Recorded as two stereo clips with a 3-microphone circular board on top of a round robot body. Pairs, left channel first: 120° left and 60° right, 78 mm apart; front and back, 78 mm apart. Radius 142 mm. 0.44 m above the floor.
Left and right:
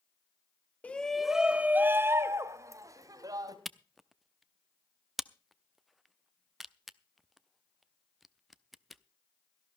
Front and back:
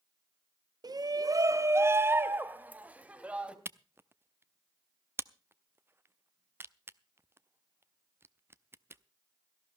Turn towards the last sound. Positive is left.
turn(degrees=-150)